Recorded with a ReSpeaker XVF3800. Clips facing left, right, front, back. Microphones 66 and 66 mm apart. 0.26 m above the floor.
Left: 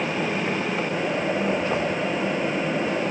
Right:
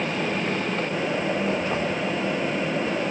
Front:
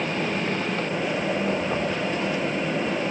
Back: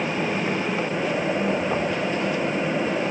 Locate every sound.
Only background noise.